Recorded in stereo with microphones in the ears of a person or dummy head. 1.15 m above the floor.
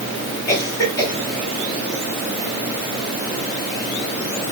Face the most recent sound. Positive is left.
turn(degrees=20)  # may be behind; listen again after turning